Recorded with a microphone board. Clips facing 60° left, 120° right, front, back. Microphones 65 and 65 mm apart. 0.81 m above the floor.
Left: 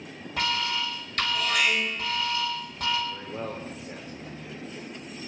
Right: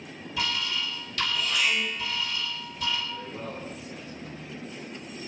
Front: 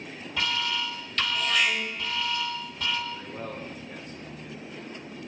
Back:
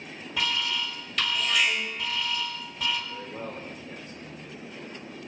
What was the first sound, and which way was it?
An alarm, 95° left.